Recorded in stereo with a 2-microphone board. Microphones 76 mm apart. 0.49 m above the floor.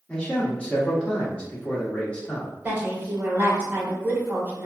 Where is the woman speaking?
20° right (ahead or behind), 1.9 m.